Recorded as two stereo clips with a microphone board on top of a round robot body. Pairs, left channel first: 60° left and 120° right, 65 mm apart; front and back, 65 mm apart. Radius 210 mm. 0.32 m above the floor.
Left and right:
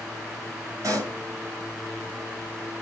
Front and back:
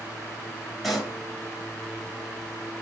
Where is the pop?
90° right, 6 m.